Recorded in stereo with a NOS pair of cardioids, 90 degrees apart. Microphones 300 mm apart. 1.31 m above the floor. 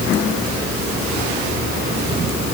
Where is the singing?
No singing in this recording.